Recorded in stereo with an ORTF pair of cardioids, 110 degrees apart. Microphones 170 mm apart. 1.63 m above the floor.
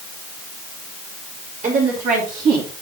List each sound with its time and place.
1.6 s a woman speaking: 45° right, 4 m; by 2.7 s 60° right, 3 m